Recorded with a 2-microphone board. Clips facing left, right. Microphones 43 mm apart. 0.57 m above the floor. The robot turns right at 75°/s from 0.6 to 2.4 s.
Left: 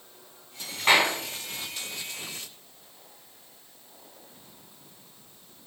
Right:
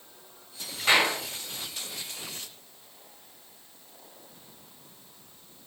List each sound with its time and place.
0.9 s a clap: 40° left (ahead or behind), 3.5 m; by 1.1 s 60° left (ahead or behind), 3.5 m